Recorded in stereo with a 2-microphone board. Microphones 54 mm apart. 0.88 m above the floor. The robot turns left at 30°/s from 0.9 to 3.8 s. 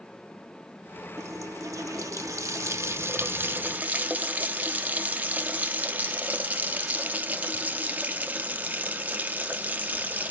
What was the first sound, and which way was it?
A running tap, 70° right.